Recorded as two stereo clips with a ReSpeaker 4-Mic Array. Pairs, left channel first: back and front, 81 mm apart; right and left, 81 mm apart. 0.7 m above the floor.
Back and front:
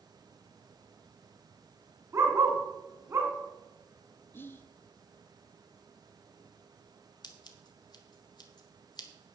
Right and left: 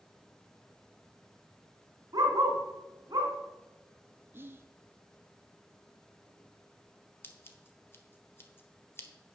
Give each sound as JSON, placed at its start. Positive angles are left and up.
{"t": 2.1, "sound": "a dog barking", "azimuth_deg": 55, "distance_m": 1.9}
{"t": 4.3, "sound": "whispering", "azimuth_deg": 135, "distance_m": 0.6}
{"t": 7.2, "sound": "scissors", "azimuth_deg": -150, "distance_m": 1.3}